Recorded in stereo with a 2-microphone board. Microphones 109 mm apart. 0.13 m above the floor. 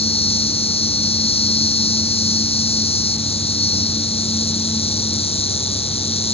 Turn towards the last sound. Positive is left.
turn(degrees=65)  # may be behind; listen again after turning